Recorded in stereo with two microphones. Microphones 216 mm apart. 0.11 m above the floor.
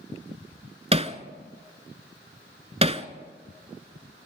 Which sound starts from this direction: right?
Hammering, at 0.9 s.